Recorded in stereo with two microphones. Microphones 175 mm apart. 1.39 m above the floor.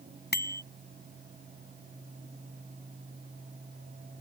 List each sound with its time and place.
0.3 s a bicycle bell: 70° left (ahead or behind)